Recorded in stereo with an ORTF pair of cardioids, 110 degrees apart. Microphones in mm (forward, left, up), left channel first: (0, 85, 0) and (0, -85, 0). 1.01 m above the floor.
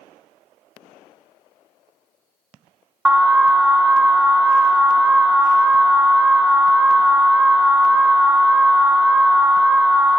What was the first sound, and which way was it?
An alarm, 5° right.